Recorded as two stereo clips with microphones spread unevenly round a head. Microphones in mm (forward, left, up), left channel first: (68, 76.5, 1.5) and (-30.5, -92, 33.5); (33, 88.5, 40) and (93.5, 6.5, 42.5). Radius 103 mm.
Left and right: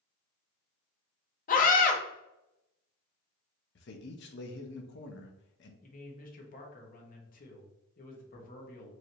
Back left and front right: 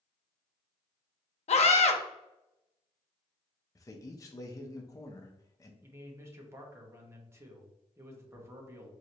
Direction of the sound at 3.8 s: 80° left.